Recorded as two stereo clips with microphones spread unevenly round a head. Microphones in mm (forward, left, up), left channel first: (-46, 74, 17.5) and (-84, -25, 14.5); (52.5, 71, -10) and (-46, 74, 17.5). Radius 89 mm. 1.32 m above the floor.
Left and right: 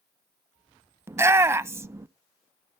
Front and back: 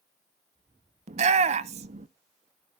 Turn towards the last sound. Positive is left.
turn(degrees=-175)